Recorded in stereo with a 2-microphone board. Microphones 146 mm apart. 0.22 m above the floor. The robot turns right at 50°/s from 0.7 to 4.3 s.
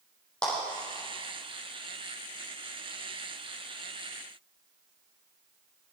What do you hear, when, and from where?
0.4 s a clap: 5° left (ahead or behind), 6.5 m